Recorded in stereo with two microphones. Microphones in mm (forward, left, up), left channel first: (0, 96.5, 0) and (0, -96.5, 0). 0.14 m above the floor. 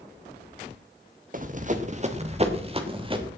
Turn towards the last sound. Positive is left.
turn(degrees=-25)  # may be behind; listen again after turning